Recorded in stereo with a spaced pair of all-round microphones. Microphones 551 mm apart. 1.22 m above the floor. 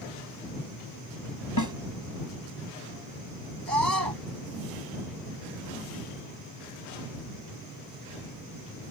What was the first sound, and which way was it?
A snare drum, 35° left (ahead or behind).